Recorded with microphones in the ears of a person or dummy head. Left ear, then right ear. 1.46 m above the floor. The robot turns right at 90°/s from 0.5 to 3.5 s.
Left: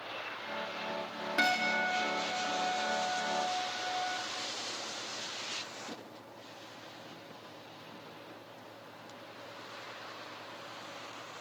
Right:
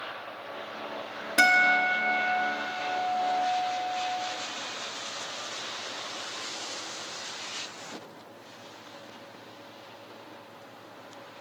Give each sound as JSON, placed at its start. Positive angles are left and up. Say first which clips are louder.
{"t": 1.4, "sound": "a guitar", "louder": "right 9 dB", "azimuth_deg": -140, "distance_m": 1.7}